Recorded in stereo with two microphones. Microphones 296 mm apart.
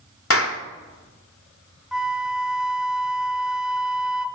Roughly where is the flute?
Centre.